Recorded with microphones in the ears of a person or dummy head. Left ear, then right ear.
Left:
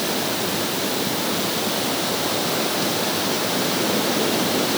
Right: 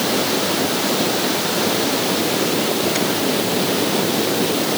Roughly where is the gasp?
I don't hear a gasp.